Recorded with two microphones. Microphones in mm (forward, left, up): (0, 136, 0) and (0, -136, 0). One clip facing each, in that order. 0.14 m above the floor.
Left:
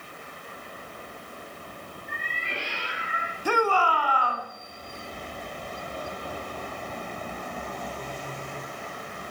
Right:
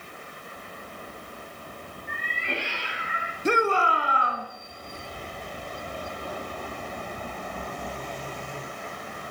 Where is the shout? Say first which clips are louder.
Right 1 dB; 25° right (ahead or behind), 1.3 m.